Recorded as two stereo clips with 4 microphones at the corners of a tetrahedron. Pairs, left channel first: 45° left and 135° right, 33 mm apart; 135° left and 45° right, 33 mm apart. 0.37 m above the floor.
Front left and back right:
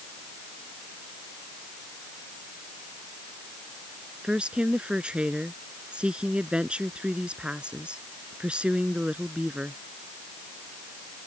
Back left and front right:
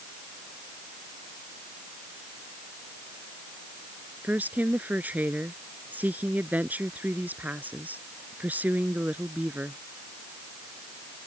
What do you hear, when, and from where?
4.2 s a woman speaking: 75° right